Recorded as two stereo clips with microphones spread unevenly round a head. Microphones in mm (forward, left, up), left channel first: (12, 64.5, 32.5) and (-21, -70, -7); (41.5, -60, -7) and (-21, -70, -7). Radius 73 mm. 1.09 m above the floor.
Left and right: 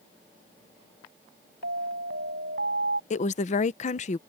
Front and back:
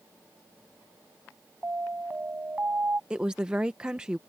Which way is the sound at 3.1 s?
115° left.